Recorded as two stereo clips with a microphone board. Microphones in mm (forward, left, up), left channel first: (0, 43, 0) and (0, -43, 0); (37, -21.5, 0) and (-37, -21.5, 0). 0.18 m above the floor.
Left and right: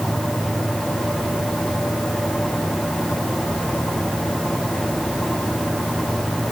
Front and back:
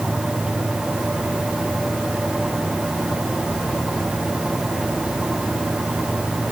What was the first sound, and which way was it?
Only background noise.